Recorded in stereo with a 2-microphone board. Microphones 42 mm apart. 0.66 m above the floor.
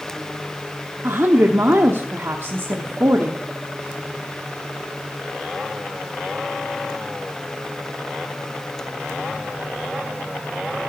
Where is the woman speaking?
60° right (ahead or behind), 1.0 m.